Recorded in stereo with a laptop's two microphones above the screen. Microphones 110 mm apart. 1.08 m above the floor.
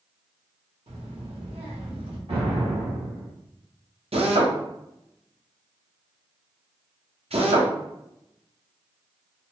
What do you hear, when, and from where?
0.9 s a child speaking: 65° right (ahead or behind), 1.0 m
2.3 s an explosion: 70° right (ahead or behind), 1.9 m
4.1 s a drill: 70° right (ahead or behind), 0.7 m